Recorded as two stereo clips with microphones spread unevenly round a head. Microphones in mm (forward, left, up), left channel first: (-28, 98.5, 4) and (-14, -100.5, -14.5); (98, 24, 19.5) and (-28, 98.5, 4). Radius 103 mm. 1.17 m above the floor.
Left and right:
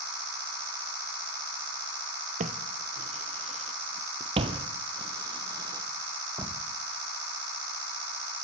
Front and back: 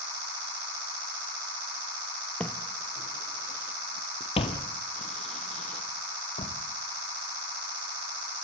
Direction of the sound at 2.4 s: 100° right.